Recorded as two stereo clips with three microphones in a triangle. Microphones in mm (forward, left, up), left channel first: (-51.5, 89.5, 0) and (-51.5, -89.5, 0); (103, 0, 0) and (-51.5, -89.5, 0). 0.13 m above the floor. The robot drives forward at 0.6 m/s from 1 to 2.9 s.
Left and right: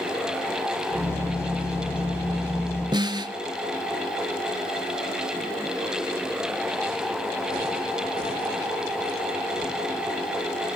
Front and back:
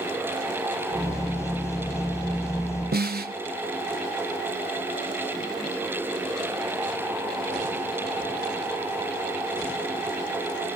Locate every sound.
2.9 s a snare drum: 155° right, 0.7 m